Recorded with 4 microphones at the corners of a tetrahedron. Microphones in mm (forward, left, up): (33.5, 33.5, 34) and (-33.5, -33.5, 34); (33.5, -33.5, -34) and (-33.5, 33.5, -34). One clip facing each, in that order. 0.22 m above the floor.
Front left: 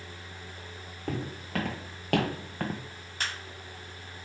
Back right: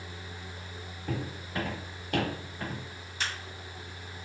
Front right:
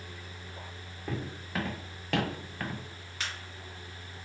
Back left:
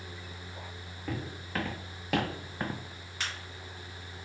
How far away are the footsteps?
About 1.8 m.